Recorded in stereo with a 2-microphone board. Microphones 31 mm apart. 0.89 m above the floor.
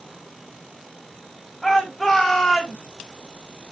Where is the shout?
5° left (ahead or behind), 5.5 m; by 2.8 s 10° left (ahead or behind), 4 m.